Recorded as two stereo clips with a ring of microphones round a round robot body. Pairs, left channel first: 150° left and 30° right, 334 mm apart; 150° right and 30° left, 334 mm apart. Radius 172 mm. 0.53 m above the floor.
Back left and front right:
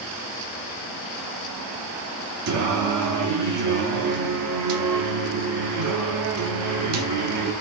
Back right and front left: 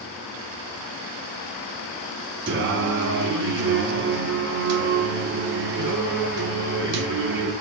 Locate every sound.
2.5 s singing: 20° right, 0.7 m